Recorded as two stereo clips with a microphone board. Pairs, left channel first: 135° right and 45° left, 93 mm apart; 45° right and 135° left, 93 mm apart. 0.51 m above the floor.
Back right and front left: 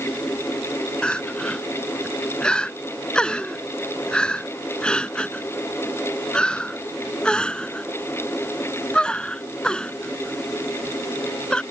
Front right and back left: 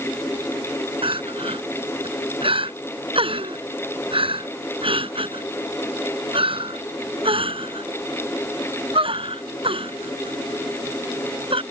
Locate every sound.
1.0 s crying: 145° left